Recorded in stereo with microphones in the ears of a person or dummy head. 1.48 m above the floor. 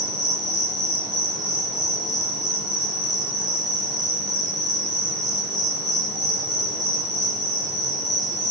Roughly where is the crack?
I don't hear a crack.